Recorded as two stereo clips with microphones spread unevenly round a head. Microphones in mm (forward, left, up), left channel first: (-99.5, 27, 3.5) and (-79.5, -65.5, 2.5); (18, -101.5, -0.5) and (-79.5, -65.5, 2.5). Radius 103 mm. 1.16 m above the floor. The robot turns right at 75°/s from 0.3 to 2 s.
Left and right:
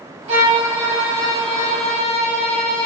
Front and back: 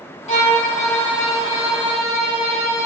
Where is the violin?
35° right, 3 m; by 2.9 s 95° left, 3 m.